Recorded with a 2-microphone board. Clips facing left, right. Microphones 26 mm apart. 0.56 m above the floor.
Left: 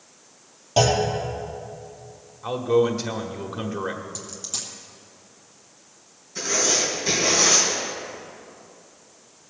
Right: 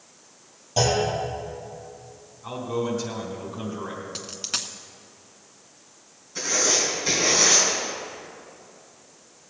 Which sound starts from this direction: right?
A dropped coin, at 4.2 s.